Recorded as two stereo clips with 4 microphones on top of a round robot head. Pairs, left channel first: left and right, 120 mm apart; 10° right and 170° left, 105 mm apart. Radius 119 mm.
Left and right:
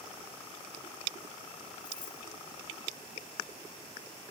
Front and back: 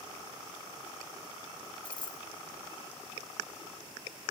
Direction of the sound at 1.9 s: 40° left.